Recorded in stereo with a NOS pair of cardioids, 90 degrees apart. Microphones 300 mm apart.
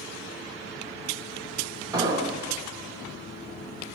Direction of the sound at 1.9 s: 10° right.